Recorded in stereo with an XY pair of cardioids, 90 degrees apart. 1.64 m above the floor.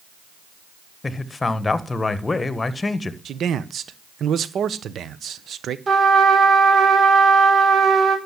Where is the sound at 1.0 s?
30° left, 1.5 m.